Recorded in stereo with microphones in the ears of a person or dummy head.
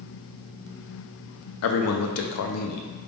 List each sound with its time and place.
1.6 s a man speaking: 80° left, 0.5 m